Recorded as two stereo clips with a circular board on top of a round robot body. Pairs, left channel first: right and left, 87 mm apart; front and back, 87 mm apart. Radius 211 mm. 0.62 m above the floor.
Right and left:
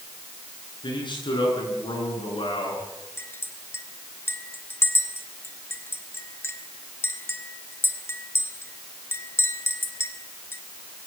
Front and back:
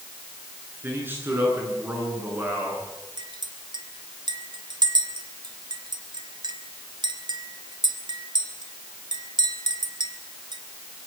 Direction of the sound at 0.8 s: 115° right.